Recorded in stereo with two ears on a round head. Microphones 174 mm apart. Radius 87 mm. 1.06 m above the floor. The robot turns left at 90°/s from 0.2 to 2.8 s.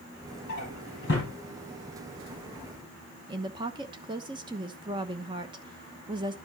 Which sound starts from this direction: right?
A woman speaking, at 3.3 s.